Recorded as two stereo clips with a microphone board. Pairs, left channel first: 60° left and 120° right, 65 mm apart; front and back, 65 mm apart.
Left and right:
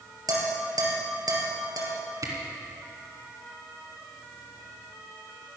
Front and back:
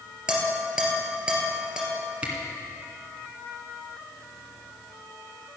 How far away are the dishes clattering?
About 3 m.